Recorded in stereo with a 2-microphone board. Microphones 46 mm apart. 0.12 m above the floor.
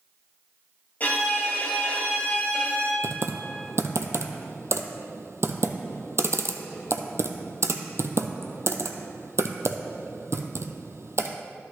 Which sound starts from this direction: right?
Typing on a keyboard, at 3.0 s.